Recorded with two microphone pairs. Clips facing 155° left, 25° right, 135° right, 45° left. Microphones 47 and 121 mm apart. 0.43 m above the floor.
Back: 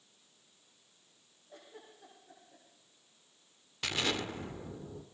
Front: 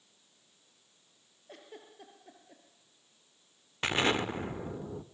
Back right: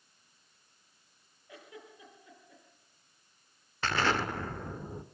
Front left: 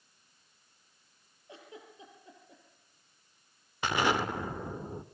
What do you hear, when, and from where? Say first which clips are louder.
1.5 s a giggle: front 3 dB, even; 20° right, 6.5 m
3.8 s an explosion: front 5 dB, front left 1 dB; 15° right, 1.2 m